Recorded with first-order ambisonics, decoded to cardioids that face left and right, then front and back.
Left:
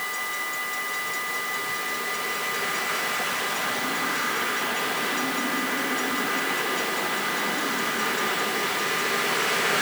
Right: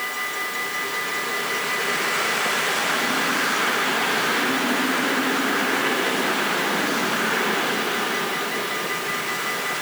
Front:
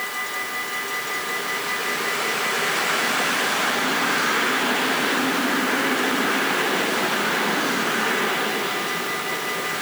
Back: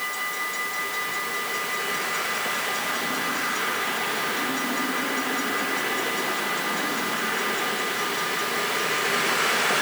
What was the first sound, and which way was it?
Only background noise.